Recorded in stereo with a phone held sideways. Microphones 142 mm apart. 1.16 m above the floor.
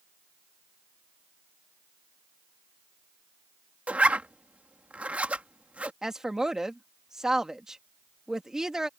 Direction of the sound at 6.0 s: 5° right (ahead or behind).